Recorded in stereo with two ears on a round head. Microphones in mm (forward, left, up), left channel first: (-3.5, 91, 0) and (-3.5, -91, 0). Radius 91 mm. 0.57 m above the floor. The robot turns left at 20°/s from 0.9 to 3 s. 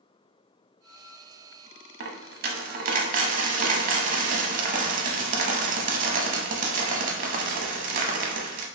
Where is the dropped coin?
55° right (ahead or behind), 0.6 m; by 8.7 s 40° right (ahead or behind), 0.6 m.